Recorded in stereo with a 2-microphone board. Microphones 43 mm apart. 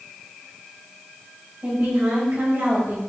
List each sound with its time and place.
1.6 s a woman speaking: 50° right (ahead or behind), 3 m; by 3.0 s 65° right (ahead or behind), 3 m